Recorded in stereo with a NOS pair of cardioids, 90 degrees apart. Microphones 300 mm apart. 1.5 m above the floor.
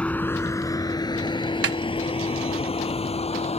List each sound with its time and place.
0.0 s a vehicle: 5° left; by 3.6 s 20° left
1.6 s a snare drum: 50° right